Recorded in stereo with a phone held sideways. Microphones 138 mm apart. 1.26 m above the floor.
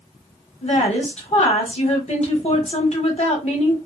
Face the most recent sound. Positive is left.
turn(degrees=50)  # may be behind; listen again after turning